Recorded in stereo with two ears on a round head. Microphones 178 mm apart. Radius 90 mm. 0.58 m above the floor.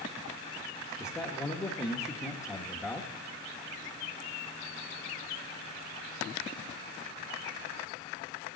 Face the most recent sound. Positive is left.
turn(degrees=15)  # may be behind; listen again after turning